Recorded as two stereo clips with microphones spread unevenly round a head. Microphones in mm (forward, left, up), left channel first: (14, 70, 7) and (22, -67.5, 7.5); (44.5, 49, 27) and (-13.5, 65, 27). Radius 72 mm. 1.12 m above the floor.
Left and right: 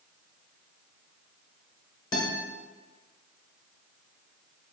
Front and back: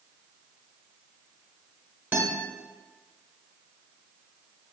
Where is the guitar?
130° left, 0.9 m.